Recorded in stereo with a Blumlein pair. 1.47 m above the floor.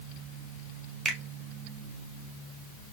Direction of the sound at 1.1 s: 20° right.